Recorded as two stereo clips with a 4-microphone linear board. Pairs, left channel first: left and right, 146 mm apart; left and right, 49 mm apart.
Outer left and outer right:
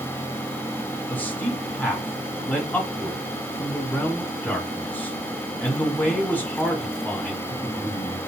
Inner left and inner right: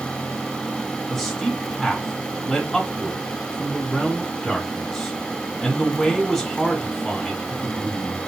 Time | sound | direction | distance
1.1 | a man speaking | 10° left (ahead or behind) | 1.4 m